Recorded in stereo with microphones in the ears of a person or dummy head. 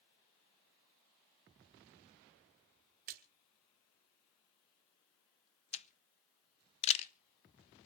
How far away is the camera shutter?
About 0.7 m.